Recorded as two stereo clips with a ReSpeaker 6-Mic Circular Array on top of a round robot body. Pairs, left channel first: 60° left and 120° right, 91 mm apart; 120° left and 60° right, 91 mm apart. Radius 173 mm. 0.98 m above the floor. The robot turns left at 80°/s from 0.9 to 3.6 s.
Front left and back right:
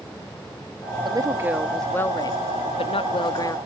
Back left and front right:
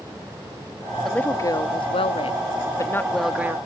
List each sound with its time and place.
1.1 s a woman speaking: 155° right; by 3.6 s 5° left